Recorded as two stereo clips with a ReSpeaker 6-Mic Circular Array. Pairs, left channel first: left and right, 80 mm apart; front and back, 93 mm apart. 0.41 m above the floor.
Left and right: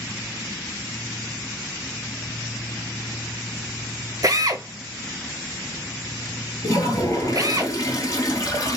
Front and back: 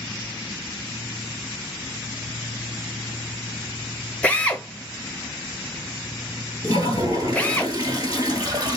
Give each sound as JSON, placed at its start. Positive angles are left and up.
{"t": 4.2, "sound": "a drill", "azimuth_deg": -70, "distance_m": 0.7}
{"t": 6.6, "sound": "a toilet flushing", "azimuth_deg": 135, "distance_m": 1.3}